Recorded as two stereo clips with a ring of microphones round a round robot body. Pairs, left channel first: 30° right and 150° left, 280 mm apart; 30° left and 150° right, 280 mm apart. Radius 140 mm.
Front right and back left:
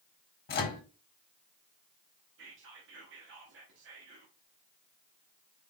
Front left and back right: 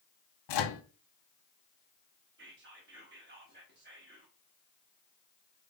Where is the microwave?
25° left, 0.7 m.